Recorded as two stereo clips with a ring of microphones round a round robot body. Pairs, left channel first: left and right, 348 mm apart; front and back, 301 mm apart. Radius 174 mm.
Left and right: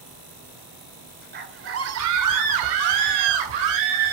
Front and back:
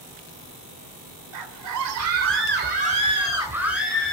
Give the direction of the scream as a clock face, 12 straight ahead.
5 o'clock.